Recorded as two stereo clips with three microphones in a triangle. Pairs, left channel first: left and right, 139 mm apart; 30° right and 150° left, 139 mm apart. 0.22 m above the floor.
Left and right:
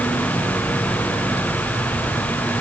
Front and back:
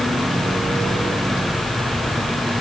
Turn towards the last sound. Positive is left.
No sound to turn to.